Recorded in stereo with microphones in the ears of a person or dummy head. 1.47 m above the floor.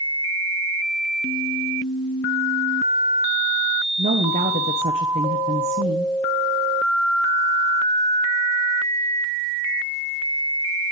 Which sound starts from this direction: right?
A woman speaking, at 4.0 s.